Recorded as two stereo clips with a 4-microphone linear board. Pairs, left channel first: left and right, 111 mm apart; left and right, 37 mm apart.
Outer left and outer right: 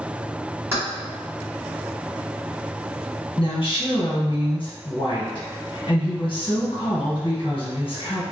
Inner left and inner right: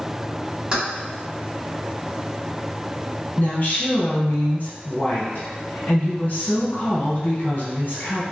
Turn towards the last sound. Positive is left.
turn(degrees=50)  # may be behind; listen again after turning